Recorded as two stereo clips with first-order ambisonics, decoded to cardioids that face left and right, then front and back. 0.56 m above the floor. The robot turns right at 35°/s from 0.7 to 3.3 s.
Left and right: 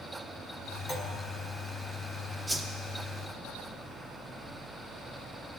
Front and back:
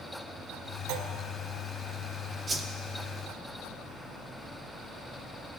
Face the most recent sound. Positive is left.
turn(degrees=-150)